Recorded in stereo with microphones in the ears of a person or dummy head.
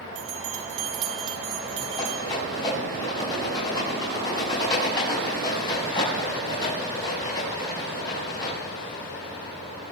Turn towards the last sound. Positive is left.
turn(degrees=25)  # may be behind; listen again after turning